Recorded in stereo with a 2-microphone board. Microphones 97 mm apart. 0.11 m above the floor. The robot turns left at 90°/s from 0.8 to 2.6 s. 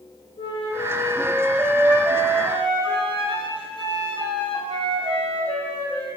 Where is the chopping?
No chopping in this recording.